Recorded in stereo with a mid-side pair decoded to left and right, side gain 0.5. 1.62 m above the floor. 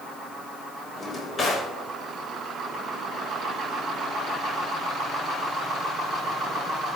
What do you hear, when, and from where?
1.0 s a drawer: 35° left, 4 m